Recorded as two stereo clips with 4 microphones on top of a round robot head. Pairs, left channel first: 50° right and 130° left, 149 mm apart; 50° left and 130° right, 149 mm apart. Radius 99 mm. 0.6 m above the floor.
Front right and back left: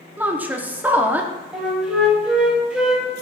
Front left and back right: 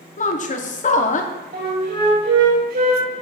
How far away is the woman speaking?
About 1.0 m.